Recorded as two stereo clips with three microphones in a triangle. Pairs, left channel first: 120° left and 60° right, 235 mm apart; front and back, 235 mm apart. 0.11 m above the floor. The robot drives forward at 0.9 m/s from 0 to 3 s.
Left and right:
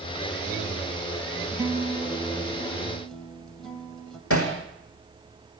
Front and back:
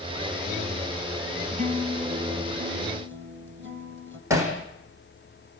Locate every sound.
1.5 s a guitar: 130° right, 1.9 m; by 4.2 s 155° right, 3 m
4.3 s hammering: 105° left, 4.5 m